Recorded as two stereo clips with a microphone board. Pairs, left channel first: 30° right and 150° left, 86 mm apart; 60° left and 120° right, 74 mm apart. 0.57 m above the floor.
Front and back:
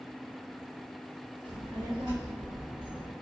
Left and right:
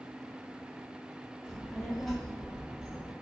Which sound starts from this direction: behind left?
A child speaking, at 1.4 s.